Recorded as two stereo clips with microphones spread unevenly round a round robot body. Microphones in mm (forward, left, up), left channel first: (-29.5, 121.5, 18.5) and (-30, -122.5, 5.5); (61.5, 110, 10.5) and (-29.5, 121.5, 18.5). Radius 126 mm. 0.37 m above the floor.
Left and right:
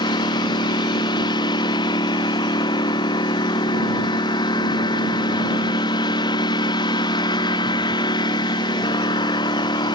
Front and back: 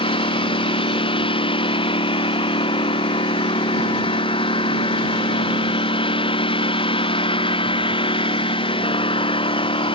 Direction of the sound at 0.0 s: 15° left.